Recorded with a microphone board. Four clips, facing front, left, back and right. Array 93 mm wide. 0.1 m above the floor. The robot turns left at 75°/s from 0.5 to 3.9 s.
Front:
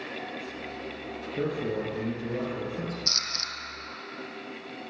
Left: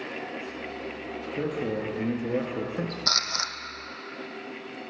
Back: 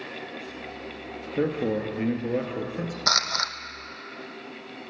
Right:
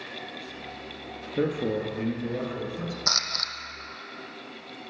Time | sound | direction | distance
1.4 | a man speaking | 135° right | 1.6 m
3.1 | a camera shutter | 170° right | 0.8 m